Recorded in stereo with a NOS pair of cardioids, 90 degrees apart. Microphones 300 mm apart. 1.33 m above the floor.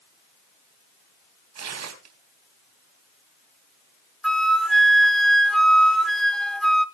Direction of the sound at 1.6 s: 60° right.